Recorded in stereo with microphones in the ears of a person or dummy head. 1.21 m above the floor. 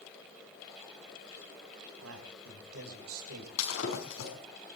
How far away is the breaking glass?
About 5.5 m.